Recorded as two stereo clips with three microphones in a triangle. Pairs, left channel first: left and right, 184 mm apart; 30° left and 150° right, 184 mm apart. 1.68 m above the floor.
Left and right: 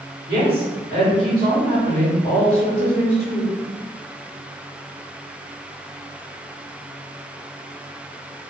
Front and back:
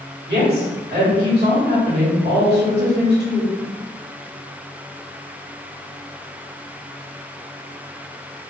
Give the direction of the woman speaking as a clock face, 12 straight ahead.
4 o'clock.